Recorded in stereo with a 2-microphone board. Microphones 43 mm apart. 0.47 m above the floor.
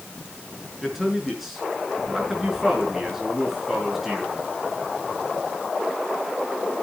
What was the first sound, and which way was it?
A man speaking, 5° right (ahead or behind).